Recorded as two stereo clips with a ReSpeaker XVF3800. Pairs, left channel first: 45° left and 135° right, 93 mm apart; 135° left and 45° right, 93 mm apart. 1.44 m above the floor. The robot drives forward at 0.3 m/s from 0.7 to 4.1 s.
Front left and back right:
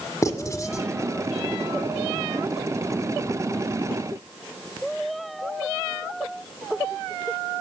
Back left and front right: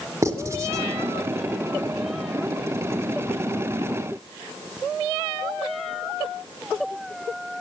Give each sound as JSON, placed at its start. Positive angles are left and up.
{"t": 0.2, "sound": "writing", "azimuth_deg": 5, "distance_m": 1.7}